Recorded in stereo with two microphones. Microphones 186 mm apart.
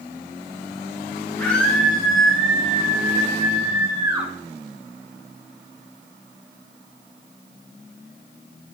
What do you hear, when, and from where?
1.4 s a scream: 5° left (ahead or behind), 6.5 m; by 4.3 s 20° right (ahead or behind), 6 m